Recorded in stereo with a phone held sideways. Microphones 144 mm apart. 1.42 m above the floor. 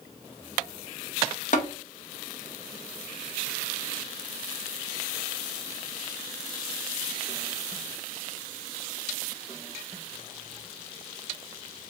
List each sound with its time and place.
1.5 s tapping: 55° left (ahead or behind), 0.9 m